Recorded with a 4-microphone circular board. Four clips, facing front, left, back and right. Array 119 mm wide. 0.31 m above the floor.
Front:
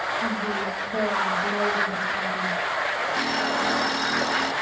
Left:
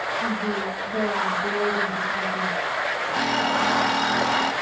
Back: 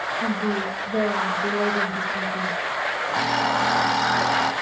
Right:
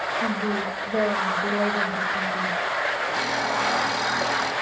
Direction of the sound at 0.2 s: 120° right.